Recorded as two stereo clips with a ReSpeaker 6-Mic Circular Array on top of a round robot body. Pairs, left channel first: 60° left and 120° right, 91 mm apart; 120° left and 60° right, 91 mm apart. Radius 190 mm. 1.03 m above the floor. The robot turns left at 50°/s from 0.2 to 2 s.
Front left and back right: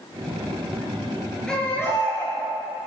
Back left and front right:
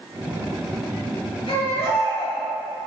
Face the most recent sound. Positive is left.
turn(degrees=115)